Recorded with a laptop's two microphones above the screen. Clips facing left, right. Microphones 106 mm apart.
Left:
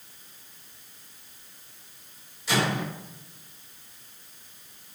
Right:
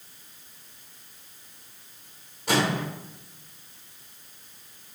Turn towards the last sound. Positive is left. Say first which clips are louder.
# right 2 dB
turn(degrees=-55)  # may be behind; listen again after turning